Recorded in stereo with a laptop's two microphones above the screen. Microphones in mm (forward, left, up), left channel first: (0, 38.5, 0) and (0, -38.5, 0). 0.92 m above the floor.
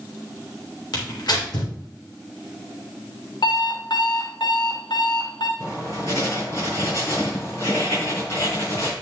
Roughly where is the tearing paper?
Left.